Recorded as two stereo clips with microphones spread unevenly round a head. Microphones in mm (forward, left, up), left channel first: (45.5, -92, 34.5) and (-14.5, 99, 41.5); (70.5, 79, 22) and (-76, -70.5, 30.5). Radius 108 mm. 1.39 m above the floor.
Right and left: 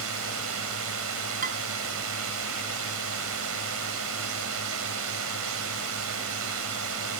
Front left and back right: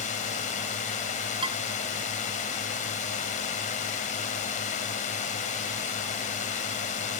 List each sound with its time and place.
0.0 s a drone: 100° left
1.4 s dishes clattering: 160° left